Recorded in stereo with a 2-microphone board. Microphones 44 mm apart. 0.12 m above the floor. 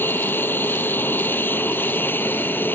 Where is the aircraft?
55° left (ahead or behind).